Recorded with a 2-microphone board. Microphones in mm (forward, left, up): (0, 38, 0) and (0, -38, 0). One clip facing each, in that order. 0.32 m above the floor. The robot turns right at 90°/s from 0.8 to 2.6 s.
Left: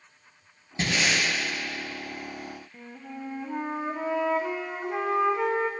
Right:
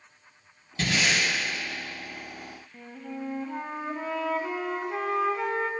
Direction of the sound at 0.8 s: 150° left.